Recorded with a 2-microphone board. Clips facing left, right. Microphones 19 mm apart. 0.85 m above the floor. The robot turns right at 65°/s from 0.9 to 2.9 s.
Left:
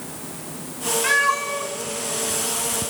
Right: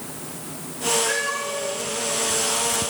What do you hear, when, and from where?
1.0 s a cat meowing: 55° left (ahead or behind), 1.2 m; by 2.9 s 10° right (ahead or behind), 1.2 m